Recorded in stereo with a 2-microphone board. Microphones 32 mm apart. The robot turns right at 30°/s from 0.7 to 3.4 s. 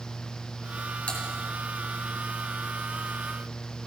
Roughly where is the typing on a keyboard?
Left.